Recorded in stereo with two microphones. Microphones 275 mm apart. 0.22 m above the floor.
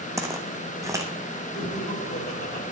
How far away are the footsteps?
About 1.1 m.